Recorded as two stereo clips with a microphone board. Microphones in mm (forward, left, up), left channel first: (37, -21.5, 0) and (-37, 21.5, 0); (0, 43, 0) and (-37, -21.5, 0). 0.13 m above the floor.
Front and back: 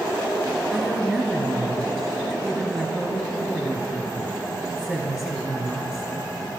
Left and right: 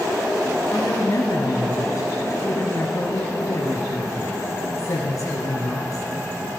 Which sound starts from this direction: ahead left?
A woman speaking, at 0.7 s.